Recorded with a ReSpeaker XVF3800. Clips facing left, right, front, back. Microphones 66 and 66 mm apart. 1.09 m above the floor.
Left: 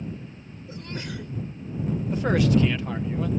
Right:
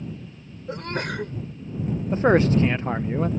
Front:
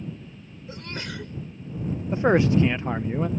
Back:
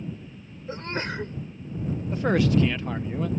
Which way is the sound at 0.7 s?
125° right.